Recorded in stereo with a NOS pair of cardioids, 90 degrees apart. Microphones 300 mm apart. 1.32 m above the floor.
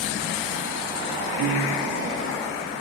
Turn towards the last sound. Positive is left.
turn(degrees=-65)